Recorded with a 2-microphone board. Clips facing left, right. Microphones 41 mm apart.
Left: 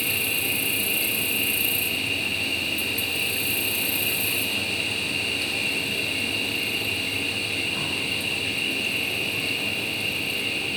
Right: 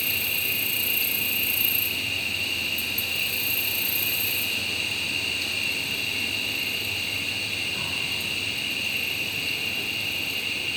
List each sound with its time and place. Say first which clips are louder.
0.0 s an insect: left 2 dB; 10° left (ahead or behind), 1.7 m